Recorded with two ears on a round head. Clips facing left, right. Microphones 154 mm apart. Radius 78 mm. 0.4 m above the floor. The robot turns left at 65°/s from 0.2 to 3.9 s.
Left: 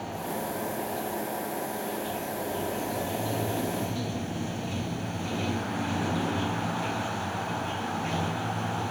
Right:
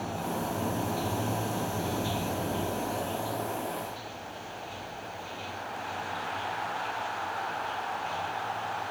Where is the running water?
10° right; by 8.9 s 110° left.